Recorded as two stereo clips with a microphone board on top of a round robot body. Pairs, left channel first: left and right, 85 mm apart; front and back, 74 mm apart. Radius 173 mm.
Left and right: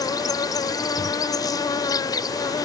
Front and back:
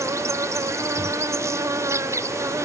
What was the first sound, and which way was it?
An insect, 130° left.